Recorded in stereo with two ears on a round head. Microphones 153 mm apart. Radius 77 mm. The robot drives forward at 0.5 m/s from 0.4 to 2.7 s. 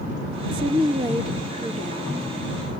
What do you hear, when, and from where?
0.5 s a woman speaking: 65° right (ahead or behind), 1.4 m; by 2.7 s 35° right (ahead or behind), 2 m